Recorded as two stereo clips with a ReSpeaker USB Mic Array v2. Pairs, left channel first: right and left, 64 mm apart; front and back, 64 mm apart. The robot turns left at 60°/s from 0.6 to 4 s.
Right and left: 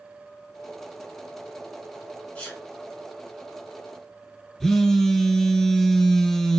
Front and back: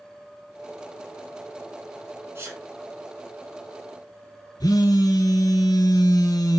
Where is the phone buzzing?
5° right, 0.6 m.